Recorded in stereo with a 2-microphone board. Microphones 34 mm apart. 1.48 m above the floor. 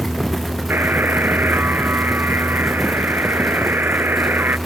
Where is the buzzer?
75° right (ahead or behind).